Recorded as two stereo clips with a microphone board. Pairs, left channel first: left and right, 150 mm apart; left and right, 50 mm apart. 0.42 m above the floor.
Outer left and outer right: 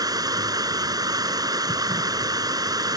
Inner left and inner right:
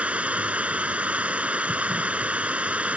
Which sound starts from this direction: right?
Running water, at 0.0 s.